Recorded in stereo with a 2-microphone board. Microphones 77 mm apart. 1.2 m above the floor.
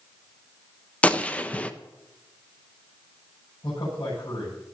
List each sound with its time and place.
1.0 s a gunshot: 15° left (ahead or behind), 0.7 m
3.6 s a man speaking: 70° left (ahead or behind), 8.5 m